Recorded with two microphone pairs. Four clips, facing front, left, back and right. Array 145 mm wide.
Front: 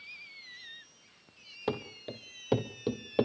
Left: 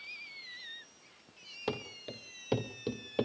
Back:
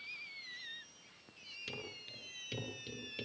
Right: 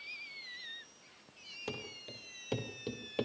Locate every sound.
1.7 s running footsteps: 25° left, 3.5 m; by 3.2 s 10° left, 2.5 m